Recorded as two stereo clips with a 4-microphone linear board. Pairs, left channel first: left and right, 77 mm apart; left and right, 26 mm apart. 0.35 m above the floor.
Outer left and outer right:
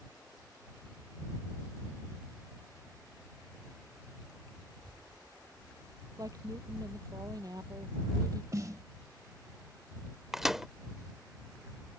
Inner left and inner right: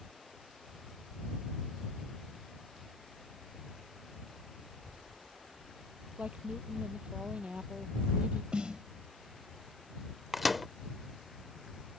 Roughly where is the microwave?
Centre.